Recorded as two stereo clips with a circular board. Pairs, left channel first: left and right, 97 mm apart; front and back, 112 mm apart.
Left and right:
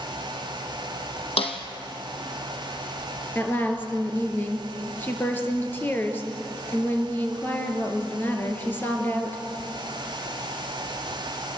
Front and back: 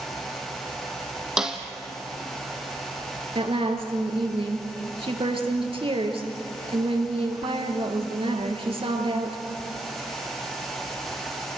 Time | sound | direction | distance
1.4 | a snare drum | 95° left | 2.5 m
3.4 | a woman speaking | 155° left | 3.5 m